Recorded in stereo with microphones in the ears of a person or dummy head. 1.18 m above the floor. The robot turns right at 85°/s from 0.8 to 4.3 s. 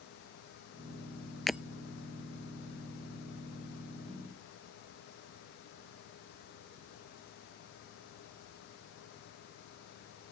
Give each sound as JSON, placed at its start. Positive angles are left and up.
{"t": 1.5, "sound": "breaking glass", "side_deg": 0}